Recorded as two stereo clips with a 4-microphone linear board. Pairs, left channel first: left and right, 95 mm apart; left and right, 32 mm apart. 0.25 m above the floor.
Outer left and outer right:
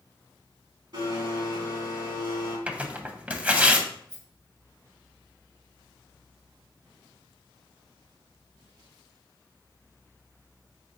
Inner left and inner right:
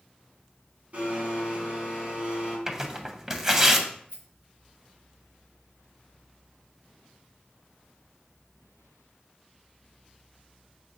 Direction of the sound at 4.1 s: 50° right (ahead or behind).